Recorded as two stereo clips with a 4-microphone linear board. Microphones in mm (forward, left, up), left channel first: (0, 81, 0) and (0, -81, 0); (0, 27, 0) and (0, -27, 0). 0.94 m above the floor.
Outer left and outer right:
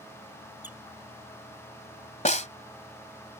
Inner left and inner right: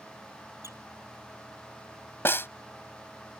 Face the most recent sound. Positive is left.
turn(degrees=45)  # may be behind; listen again after turning